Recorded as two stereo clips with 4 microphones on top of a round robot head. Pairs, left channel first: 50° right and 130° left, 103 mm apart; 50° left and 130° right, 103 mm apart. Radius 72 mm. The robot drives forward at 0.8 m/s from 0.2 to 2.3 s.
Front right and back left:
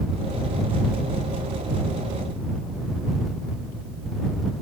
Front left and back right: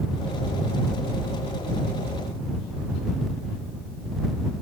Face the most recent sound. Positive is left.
No sound to turn to.